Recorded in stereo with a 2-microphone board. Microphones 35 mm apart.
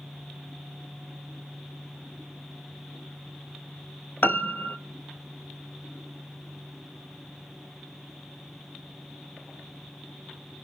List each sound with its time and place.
4.2 s a piano: 65° left (ahead or behind), 0.7 m